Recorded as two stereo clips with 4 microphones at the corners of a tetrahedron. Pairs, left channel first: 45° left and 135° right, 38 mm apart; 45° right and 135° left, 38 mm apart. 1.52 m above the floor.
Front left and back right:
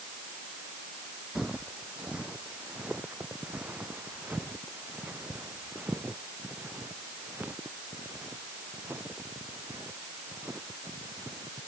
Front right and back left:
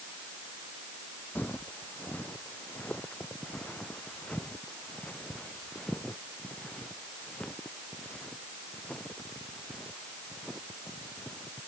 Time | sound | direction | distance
1.4 | footsteps | 70° right | ?